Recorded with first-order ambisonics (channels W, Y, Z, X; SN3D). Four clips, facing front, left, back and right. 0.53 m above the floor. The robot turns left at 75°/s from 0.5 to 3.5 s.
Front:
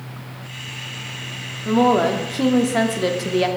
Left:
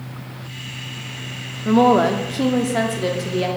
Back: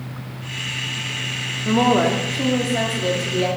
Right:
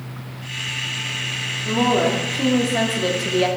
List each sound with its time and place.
1.6 s a woman speaking: 105° left, 0.6 m; by 3.5 s 30° right, 0.6 m